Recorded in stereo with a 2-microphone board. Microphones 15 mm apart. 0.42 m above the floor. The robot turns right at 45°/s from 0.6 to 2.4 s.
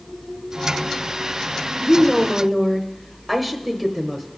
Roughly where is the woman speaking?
Centre.